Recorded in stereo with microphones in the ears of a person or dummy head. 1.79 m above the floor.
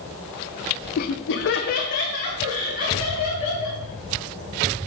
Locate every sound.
1.0 s laughter: 50° left (ahead or behind), 0.8 m; by 3.8 s 40° left (ahead or behind), 4.5 m